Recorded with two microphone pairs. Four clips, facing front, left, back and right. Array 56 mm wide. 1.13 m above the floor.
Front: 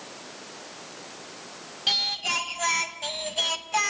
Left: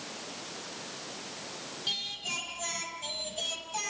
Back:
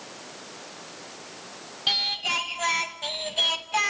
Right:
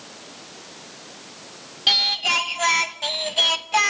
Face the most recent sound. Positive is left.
turn(degrees=-95)